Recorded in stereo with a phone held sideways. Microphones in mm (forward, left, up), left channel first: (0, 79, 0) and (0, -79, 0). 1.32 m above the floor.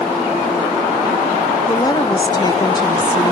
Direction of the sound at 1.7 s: 25° left (ahead or behind).